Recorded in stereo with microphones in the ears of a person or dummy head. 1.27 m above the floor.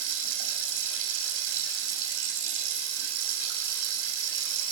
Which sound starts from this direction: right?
Running water, at 0.0 s.